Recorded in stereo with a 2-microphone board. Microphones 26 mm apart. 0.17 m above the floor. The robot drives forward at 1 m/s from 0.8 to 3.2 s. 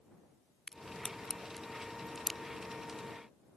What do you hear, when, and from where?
0.7 s a crack: 25° left (ahead or behind); by 2.4 s 10° left (ahead or behind)